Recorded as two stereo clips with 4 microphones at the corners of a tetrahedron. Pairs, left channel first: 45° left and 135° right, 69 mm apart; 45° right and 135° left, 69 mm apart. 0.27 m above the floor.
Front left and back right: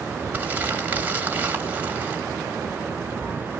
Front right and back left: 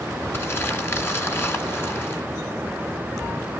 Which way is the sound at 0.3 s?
80° right.